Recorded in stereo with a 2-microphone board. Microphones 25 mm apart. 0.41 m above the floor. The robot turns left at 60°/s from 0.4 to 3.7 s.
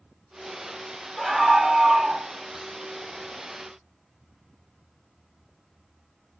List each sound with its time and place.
1.2 s a scream: 10° right (ahead or behind), 0.8 m; by 2.2 s 25° right (ahead or behind), 0.8 m